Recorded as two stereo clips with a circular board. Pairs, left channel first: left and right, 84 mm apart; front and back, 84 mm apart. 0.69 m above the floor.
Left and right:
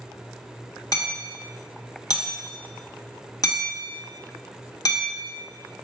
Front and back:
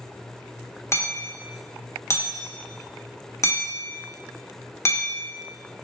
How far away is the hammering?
About 0.9 m.